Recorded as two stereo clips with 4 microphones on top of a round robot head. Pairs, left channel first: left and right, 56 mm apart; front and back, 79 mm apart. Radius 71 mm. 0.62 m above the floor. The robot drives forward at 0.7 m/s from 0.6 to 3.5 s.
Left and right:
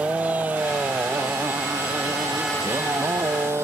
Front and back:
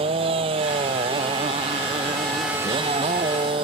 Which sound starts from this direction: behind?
A motorcycle, at 0.0 s.